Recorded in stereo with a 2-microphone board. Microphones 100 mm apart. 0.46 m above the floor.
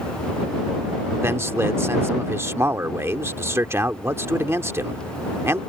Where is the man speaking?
25° right (ahead or behind).